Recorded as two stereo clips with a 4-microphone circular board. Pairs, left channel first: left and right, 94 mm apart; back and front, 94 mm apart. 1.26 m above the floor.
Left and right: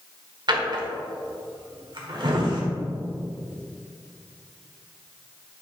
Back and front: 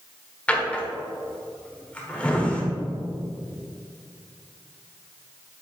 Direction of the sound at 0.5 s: 105° right.